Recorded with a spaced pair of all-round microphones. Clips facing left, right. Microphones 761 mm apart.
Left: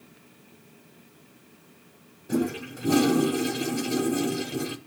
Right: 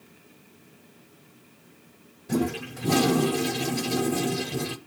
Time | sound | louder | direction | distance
2.3 | a toilet flushing | even | 40° right (ahead or behind) | 0.5 m